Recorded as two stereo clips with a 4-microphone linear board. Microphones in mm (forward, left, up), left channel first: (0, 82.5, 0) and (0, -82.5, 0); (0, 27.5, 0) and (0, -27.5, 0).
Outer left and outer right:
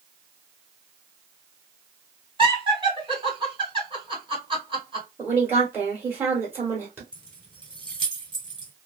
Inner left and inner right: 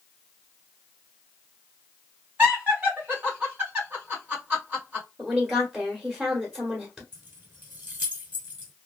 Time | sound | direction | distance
2.4 | laughter | 30° right (ahead or behind) | 1.6 m
5.2 | a woman speaking | 10° right (ahead or behind) | 1.2 m
7.1 | keys jangling | 30° right (ahead or behind) | 1.0 m